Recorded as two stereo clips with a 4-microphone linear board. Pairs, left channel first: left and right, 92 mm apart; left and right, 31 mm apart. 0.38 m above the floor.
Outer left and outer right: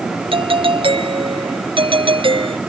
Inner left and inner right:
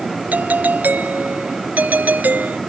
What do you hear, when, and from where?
0.3 s a doorbell: 75° right (ahead or behind)